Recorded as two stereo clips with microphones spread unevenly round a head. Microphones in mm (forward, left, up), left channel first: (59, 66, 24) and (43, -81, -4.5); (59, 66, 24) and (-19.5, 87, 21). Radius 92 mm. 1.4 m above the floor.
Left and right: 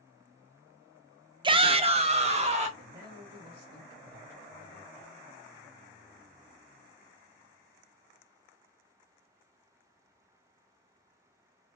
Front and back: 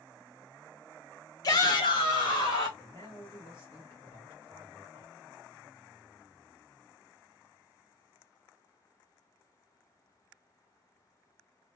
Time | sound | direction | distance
1.4 | a shout | 55° right | 0.5 m
2.8 | a man speaking | 90° right | 1.6 m